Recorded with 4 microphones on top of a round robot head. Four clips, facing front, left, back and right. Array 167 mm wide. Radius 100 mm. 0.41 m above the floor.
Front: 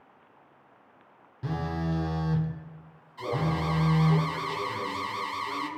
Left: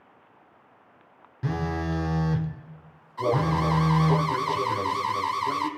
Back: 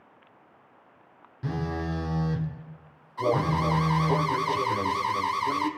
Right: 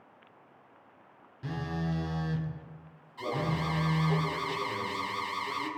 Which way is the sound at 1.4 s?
85° left.